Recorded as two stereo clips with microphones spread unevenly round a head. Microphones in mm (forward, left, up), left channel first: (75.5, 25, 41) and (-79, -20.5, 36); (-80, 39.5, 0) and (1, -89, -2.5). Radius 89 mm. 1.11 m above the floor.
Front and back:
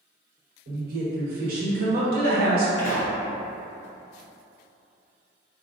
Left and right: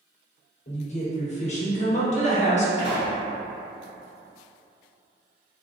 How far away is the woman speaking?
About 1.1 m.